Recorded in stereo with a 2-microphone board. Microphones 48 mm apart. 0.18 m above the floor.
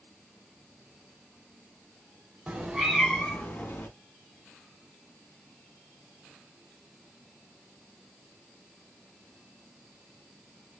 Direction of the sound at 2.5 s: 25° right (ahead or behind).